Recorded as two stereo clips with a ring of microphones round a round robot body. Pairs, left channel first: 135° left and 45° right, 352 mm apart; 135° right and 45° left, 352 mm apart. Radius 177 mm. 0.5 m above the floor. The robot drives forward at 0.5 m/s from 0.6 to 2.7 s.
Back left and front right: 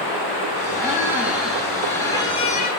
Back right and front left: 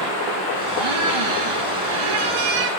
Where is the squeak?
35° left, 1.6 m; by 2.7 s 70° left, 1.0 m.